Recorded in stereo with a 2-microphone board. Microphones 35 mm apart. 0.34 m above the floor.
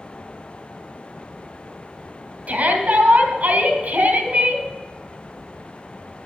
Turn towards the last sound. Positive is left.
turn(degrees=-50)  # may be behind; listen again after turning